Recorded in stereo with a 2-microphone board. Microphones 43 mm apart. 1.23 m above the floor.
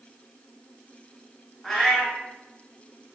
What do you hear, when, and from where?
1.6 s a cat meowing: 10° left (ahead or behind), 1.2 m